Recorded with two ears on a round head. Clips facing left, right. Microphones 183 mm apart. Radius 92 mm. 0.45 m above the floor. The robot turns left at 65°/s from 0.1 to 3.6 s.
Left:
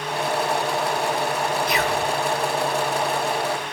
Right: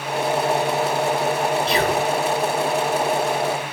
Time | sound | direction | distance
1.7 | whispering | 25° right (ahead or behind) | 1.7 m